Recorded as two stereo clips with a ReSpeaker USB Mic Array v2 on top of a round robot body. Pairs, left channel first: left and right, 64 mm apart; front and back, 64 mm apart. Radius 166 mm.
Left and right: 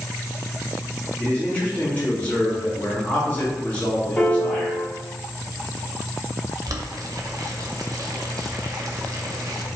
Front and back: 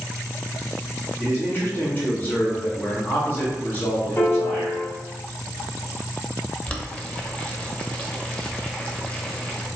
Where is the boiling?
70° right, 0.7 m.